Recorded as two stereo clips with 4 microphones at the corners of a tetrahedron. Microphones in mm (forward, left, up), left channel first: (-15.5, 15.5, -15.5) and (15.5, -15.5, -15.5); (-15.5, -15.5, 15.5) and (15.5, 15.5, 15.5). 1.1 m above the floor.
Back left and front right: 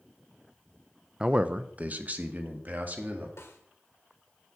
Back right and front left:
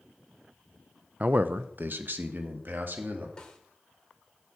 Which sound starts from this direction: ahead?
A man speaking, at 1.2 s.